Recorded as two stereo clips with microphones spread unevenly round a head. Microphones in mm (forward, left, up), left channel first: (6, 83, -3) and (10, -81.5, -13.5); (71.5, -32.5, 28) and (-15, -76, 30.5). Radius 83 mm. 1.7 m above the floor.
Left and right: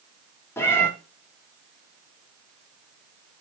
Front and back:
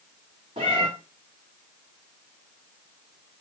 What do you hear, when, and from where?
0.6 s a cat meowing: 160° left, 1.8 m